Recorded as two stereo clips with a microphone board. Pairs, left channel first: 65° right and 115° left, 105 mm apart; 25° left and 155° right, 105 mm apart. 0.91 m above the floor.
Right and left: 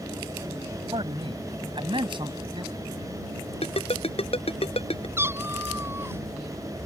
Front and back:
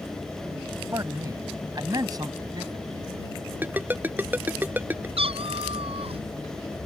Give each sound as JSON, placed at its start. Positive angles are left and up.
{"t": 0.9, "sound": "a man speaking", "azimuth_deg": 145}
{"t": 3.6, "sound": "a ringtone", "azimuth_deg": -85}
{"t": 5.2, "sound": "a cat meowing", "azimuth_deg": 180}